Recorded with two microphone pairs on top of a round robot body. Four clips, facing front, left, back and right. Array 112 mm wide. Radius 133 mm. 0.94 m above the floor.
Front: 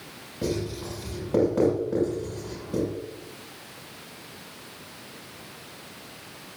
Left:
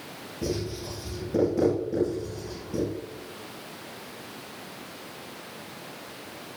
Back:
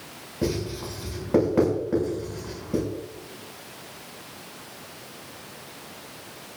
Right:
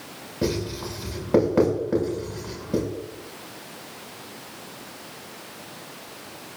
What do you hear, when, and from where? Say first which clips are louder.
0.4 s writing: right 4 dB, back 1 dB; 100° right, 7.5 m